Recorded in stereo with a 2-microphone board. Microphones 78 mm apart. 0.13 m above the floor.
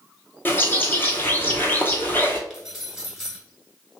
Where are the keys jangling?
5° right (ahead or behind), 1.1 m.